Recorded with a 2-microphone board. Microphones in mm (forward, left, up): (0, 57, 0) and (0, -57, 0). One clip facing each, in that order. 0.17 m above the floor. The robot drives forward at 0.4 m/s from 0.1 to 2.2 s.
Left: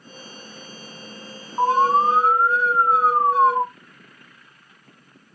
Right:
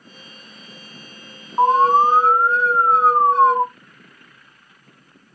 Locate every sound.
1.6 s an alarm: 30° right (ahead or behind), 1.9 m; by 3.6 s 35° right (ahead or behind), 1.8 m